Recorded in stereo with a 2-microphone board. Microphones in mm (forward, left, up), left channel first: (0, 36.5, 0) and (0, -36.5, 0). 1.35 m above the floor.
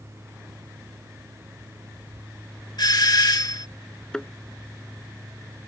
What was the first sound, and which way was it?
A doorbell, 65° left (ahead or behind).